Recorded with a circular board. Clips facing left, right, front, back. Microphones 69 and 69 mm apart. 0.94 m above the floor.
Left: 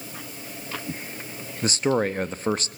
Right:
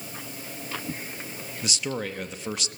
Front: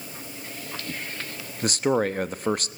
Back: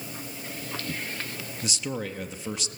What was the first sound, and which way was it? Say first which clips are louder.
A man speaking: left 9 dB, front 11 dB; 40° left.